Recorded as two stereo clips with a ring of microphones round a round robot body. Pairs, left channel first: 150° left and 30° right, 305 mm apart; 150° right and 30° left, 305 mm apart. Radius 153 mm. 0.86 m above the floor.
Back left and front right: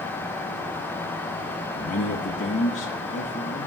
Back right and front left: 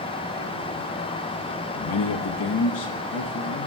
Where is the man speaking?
145° right, 0.7 m.